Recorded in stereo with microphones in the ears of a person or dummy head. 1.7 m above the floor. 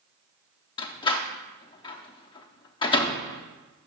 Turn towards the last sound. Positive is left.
turn(degrees=30)  # may be behind; listen again after turning